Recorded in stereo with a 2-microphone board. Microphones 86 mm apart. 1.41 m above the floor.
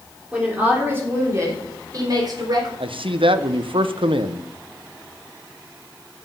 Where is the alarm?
I don't hear an alarm.